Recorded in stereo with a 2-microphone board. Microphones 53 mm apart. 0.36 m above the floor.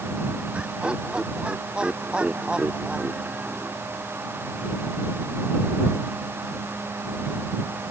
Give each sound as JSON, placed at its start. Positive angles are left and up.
{"t": 0.5, "sound": "laughter", "side_deg": -20}